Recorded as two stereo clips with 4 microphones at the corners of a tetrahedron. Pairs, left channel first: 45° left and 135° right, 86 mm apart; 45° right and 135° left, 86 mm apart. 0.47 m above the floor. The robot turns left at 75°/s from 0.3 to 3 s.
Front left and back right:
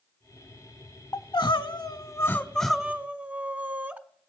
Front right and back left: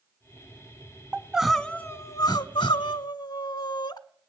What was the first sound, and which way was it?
Crying, 75° left.